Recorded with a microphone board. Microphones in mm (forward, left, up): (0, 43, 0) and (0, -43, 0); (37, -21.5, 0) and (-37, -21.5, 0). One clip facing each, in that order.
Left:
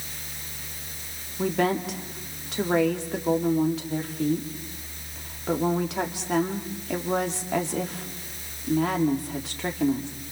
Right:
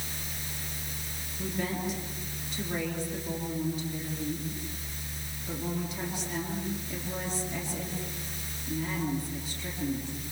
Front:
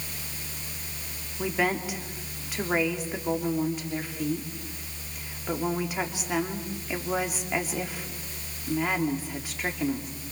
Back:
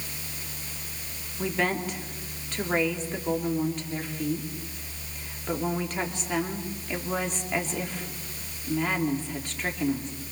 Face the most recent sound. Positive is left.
turn(degrees=80)